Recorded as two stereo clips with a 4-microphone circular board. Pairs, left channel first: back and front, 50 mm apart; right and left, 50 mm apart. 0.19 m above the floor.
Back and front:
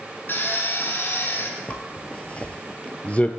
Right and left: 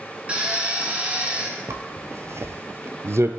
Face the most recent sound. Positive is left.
turn(degrees=115)